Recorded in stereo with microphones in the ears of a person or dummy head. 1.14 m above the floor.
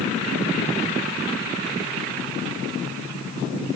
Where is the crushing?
No crushing in this recording.